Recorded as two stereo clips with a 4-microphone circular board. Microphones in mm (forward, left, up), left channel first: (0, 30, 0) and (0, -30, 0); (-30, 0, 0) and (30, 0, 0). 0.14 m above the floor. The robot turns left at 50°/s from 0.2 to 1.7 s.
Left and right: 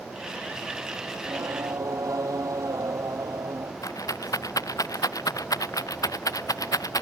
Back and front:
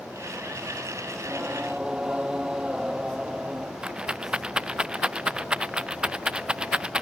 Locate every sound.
1.1 s singing: 50° right; by 3.7 s 75° right
3.8 s a rattle: 75° left